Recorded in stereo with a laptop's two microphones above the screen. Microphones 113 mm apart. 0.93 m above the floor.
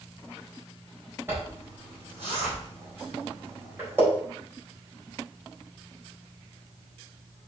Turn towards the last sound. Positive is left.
turn(degrees=-20)  # may be behind; listen again after turning